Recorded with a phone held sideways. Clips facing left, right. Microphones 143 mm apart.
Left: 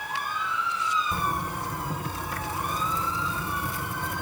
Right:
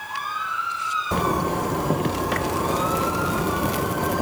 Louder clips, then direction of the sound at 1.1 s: Right 8 dB; 75° right (ahead or behind).